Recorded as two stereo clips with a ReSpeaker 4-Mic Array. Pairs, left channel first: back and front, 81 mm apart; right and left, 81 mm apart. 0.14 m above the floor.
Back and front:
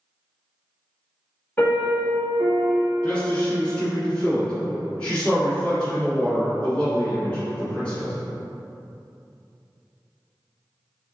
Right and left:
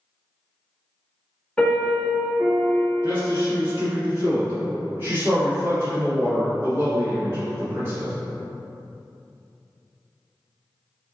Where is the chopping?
No chopping in this recording.